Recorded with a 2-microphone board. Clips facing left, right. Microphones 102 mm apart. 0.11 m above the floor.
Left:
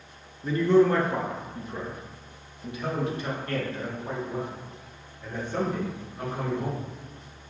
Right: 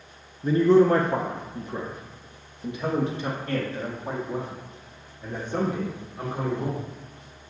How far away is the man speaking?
About 1.3 m.